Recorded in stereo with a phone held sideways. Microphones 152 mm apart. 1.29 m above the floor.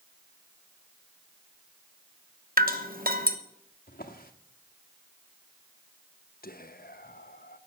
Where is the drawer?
70° left (ahead or behind), 1.3 m.